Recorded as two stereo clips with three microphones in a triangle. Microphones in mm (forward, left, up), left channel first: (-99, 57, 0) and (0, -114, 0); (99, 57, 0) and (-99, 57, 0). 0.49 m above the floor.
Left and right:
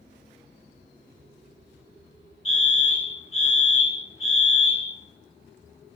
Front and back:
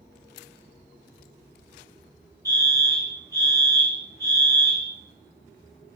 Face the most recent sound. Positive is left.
turn(degrees=120)